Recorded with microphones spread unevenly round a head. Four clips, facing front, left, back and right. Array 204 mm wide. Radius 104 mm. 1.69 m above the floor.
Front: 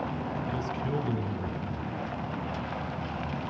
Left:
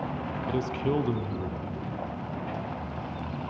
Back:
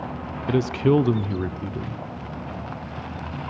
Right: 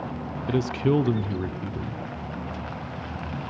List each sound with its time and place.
0.5 s a man speaking: 160° right, 0.7 m